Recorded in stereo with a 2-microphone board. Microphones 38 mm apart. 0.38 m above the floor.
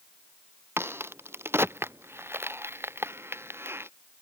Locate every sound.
0.8 s a crack: 85° right